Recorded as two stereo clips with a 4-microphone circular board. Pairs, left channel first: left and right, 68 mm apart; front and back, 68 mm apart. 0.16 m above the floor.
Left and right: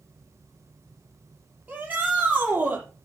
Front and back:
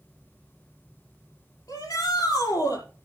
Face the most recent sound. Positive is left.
turn(degrees=-25)